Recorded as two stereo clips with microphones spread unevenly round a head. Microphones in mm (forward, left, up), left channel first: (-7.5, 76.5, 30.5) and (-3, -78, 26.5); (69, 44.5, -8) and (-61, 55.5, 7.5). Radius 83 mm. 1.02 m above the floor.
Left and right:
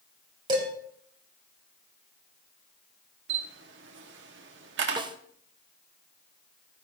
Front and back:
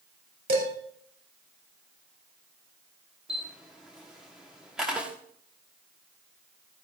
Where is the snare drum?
100° right, 0.8 m.